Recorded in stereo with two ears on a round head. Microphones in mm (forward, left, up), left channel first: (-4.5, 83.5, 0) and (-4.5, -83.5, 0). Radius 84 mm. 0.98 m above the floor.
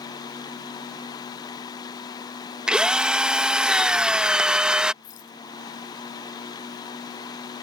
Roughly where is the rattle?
Left.